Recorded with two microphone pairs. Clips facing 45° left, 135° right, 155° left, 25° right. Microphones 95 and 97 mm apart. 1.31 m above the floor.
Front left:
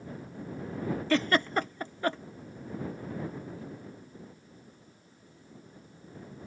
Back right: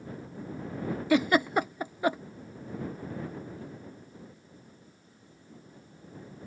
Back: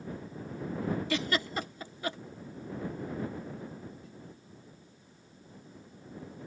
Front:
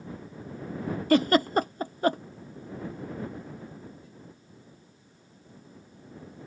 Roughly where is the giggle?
Ahead right.